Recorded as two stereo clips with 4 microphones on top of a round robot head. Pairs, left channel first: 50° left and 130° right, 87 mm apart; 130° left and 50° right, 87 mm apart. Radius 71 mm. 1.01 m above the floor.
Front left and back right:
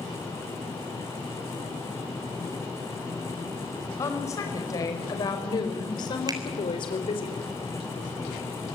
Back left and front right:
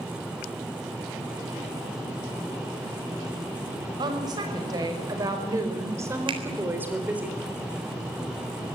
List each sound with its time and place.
4.0 s a woman speaking: 10° right, 6 m; by 7.3 s 25° left, 4 m
6.3 s a finger snap: 80° right, 4 m